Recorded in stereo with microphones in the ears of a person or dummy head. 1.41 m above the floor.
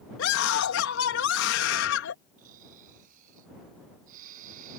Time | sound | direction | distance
0.2 | a scream | 75° left (ahead or behind) | ?
2.4 | snoring | 50° right (ahead or behind) | ?